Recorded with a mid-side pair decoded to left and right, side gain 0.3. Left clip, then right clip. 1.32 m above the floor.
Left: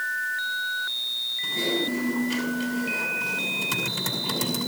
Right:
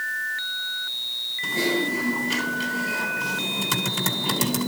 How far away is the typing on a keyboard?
About 6 m.